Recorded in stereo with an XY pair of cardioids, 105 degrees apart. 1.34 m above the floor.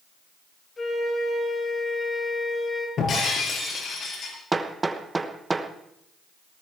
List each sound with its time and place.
0.8 s a flute: 25° left, 6.5 m
3.0 s breaking glass: 55° left, 5.5 m
4.5 s hammering: 20° right, 1.1 m